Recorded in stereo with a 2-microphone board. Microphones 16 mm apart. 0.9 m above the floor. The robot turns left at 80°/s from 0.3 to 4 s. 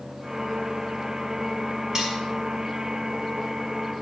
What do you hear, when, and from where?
1.9 s cutlery clinking: 25° right (ahead or behind), 2.5 m; by 2.2 s 5° right (ahead or behind), 2.5 m